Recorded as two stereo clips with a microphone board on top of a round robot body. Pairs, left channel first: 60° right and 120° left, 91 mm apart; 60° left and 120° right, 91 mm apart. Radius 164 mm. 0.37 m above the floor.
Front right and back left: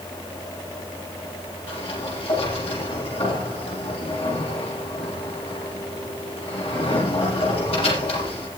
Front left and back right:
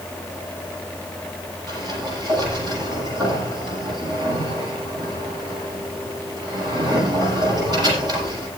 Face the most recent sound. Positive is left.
turn(degrees=-75)